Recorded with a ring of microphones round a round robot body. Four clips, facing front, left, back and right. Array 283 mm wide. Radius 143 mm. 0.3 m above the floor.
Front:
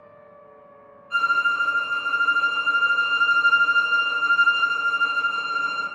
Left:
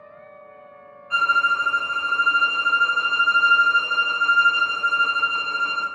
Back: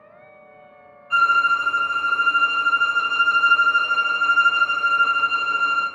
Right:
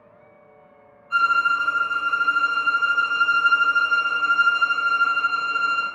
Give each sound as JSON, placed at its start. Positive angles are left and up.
{"t": 1.1, "sound": "a violin", "azimuth_deg": 125, "distance_m": 1.0}